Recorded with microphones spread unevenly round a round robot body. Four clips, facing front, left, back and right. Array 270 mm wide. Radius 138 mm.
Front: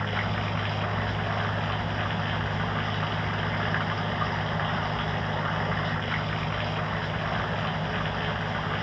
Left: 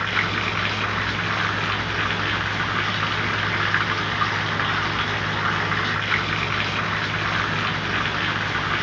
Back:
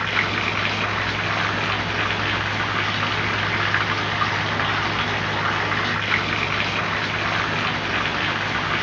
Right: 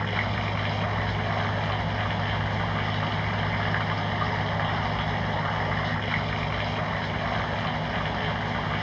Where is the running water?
160° left.